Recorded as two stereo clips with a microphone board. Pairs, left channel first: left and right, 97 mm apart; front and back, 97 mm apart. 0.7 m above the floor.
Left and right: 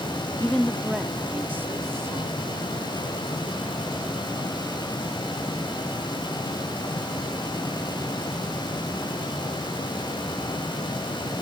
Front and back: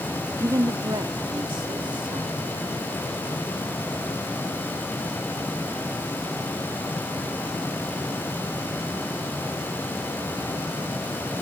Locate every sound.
0.4 s a woman speaking: 140° left; by 5.2 s 140° right